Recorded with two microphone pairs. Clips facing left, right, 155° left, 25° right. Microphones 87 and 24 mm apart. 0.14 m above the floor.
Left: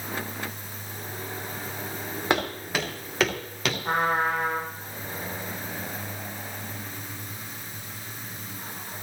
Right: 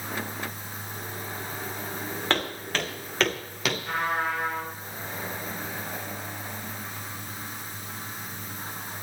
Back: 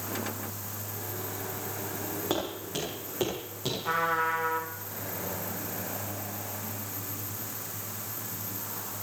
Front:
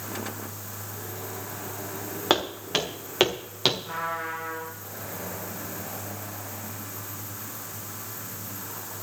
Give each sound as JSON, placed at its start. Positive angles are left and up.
{"t": 2.3, "sound": "footsteps", "azimuth_deg": 15, "distance_m": 6.0}
{"t": 3.8, "sound": "a trumpet", "azimuth_deg": 130, "distance_m": 8.5}